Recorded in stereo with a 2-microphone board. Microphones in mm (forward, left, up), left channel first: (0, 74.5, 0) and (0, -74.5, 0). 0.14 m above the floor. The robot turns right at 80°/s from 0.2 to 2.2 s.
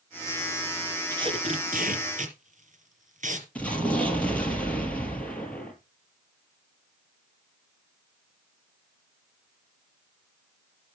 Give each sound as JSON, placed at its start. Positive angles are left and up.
{"t": 1.1, "sound": "tape being pulled", "side_deg": -25, "distance_m": 3.5}
{"t": 3.5, "sound": "an explosion", "side_deg": 10, "distance_m": 4.5}